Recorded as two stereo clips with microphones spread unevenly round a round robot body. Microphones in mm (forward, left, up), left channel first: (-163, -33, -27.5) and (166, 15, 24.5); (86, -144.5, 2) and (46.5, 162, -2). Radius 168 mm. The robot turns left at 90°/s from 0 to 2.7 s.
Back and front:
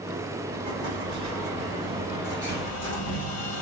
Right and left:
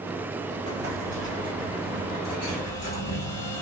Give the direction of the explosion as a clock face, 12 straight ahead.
10 o'clock.